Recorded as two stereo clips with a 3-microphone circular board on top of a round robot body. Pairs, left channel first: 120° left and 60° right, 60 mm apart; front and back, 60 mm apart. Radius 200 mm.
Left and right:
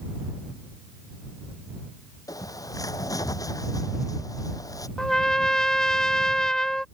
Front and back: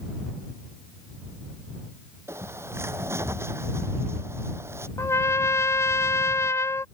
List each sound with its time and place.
2.3 s a bird: 135° left
5.0 s a trumpet: 40° left